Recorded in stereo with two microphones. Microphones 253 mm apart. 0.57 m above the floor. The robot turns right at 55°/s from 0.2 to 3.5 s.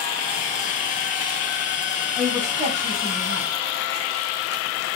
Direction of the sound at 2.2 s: Straight behind.